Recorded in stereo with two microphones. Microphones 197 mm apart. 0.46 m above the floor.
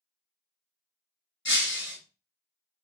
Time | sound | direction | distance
1.4 | breaking glass | 85° left | 1.3 m